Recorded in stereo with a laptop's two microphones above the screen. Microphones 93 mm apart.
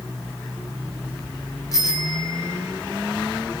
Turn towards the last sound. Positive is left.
turn(degrees=40)  # may be behind; listen again after turning